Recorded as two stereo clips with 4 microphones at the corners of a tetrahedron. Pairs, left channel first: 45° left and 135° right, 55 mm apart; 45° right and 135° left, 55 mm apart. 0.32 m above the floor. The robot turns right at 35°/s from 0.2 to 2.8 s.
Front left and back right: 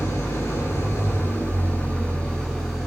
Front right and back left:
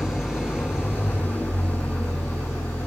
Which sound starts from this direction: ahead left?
An engine running, at 0.0 s.